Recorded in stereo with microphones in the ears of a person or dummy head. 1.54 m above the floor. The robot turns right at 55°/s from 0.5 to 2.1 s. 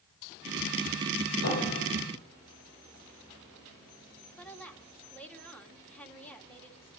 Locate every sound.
1.4 s a piano: 105° left, 4.5 m; by 2.2 s 140° left, 4.5 m
4.4 s a woman speaking: 10° left (ahead or behind), 2.5 m